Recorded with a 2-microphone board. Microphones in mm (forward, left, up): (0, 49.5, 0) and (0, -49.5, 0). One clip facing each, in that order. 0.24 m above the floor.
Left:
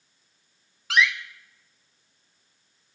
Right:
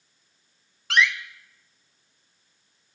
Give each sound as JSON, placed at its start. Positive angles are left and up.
{"t": 0.9, "sound": "a door slam", "side_deg": 0, "distance_m": 1.4}